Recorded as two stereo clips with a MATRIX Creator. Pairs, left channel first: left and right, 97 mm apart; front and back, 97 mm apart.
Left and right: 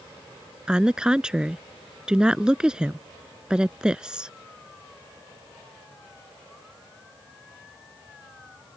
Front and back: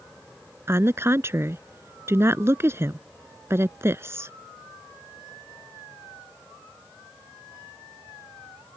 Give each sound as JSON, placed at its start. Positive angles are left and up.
{"t": 0.7, "sound": "a woman speaking", "azimuth_deg": -160}